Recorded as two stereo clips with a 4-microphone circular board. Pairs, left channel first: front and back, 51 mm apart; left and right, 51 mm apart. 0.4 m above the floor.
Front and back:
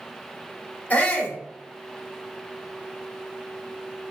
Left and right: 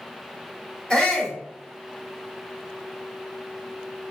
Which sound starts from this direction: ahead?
A shout, at 0.9 s.